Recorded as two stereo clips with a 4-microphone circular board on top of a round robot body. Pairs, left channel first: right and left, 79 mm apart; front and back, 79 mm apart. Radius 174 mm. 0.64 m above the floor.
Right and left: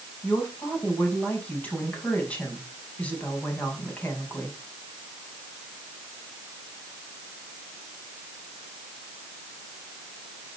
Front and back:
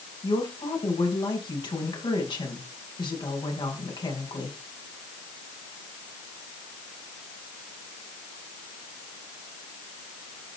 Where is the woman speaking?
20° right, 6 m.